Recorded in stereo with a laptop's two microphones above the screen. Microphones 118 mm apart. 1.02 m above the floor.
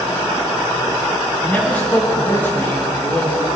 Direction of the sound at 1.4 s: 15° left (ahead or behind).